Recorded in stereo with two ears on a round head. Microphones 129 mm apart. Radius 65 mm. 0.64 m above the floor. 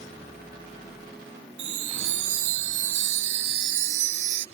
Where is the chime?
50° right (ahead or behind).